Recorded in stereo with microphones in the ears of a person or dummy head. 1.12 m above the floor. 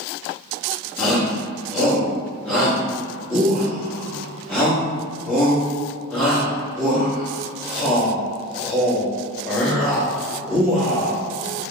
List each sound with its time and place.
1.0 s a shout: centre (ahead or behind), 1.8 m